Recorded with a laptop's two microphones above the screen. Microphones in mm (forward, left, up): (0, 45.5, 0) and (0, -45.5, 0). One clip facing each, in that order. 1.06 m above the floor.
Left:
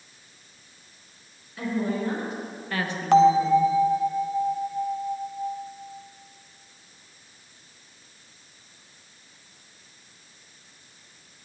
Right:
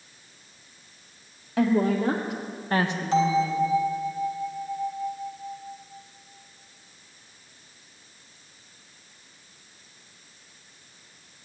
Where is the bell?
55° left (ahead or behind), 0.8 m.